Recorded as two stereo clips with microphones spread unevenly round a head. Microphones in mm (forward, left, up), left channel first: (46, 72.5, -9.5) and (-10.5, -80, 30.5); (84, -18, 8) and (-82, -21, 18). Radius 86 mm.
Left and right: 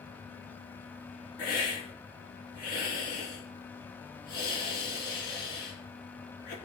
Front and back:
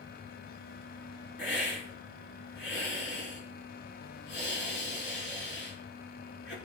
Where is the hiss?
30° left, 4 m.